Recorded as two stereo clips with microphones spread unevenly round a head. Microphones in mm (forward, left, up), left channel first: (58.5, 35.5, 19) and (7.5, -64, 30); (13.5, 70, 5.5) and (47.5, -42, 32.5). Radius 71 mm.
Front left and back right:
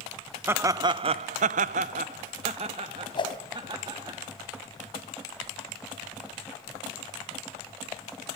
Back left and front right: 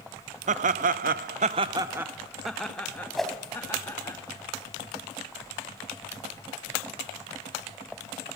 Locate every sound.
0.5 s laughter: 45° right, 0.9 m; by 4.2 s straight behind, 2.5 m
3.1 s a whoosh: 15° left, 3.5 m